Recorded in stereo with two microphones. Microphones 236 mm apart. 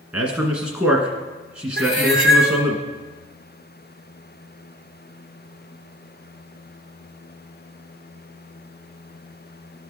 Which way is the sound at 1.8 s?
55° right (ahead or behind).